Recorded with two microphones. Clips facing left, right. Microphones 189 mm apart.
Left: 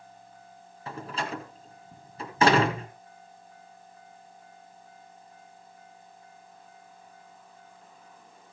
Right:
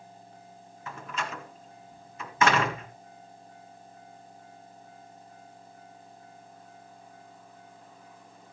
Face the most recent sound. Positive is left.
turn(degrees=35)  # may be behind; listen again after turning